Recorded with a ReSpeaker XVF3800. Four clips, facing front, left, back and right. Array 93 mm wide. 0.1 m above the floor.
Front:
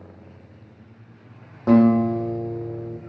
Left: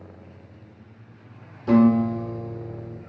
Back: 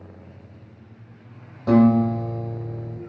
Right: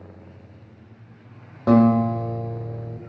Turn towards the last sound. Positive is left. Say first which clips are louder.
# right 1 dB, even
turn(degrees=-70)